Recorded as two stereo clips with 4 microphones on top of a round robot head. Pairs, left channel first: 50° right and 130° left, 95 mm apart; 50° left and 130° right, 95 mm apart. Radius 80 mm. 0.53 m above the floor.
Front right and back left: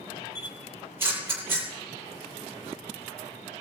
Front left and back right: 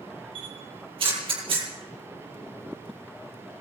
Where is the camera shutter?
160° right, 7.5 m.